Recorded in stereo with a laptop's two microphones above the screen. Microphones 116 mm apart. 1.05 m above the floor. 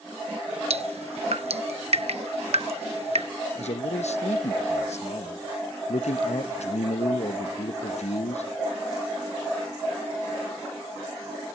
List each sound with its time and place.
0.7 s dripping: 65° right (ahead or behind), 0.8 m
3.5 s a man speaking: 75° left (ahead or behind), 0.9 m